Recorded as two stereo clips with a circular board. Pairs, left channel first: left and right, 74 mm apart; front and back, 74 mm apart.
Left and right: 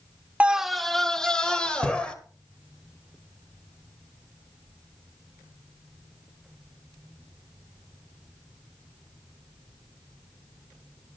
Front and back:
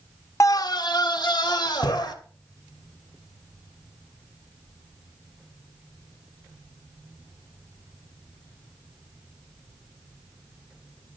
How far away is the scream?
About 0.6 m.